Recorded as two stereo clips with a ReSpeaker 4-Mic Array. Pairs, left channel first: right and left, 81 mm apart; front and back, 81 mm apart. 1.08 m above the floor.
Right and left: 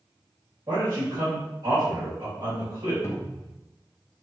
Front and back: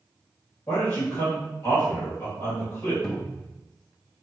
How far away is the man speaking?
About 1.8 m.